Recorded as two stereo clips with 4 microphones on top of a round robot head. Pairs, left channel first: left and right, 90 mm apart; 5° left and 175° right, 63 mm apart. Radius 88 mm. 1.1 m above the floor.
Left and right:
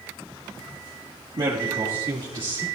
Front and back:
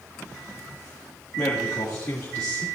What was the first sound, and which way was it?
A man speaking, 50° right.